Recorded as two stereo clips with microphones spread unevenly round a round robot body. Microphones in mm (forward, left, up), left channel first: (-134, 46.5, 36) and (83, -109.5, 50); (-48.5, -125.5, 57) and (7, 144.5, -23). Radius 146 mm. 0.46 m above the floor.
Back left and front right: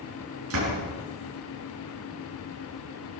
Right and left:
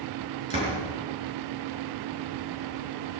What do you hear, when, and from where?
0.5 s a door slam: 5° left, 5 m